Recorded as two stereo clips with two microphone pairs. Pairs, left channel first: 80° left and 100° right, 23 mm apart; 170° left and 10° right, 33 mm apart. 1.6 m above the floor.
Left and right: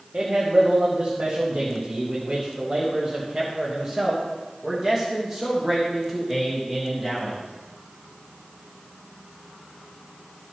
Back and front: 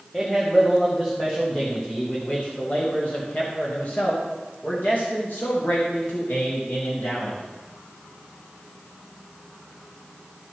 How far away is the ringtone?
I don't hear a ringtone.